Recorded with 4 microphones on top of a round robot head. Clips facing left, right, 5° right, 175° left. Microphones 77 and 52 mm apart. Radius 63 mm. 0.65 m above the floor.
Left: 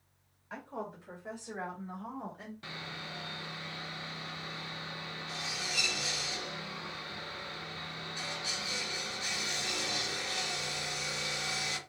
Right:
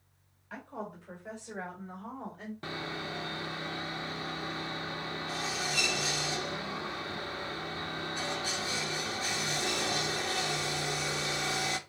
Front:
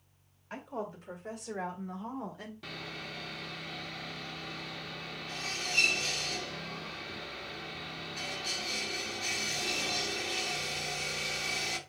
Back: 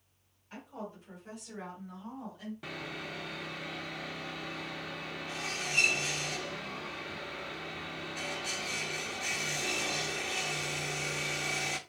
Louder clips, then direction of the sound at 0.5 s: Even, front 5 dB; 20° left.